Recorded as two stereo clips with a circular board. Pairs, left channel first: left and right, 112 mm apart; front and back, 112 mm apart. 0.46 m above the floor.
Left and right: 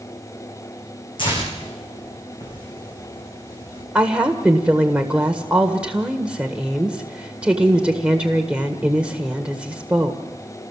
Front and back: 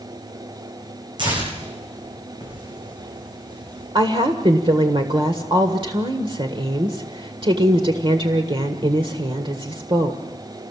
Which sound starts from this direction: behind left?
Tearing paper, at 1.2 s.